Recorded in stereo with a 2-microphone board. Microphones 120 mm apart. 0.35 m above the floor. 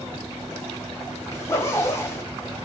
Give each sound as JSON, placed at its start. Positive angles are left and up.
{"t": 1.3, "sound": "a zipper", "side_deg": 25, "distance_m": 0.7}